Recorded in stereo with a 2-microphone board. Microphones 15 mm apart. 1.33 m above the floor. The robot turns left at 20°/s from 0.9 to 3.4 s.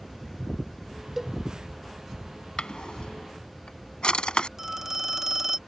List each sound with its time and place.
1.2 s a cowbell: 15° right (ahead or behind); by 1.3 s 20° right (ahead or behind)
2.6 s a drawer: 70° left (ahead or behind); by 4.5 s 80° left
4.6 s a phone ringing: 25° right (ahead or behind)